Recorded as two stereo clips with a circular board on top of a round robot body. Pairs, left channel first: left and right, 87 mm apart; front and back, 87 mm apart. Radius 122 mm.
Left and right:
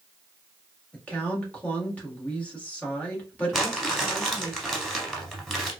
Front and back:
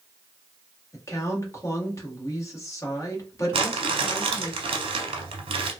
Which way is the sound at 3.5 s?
Straight behind.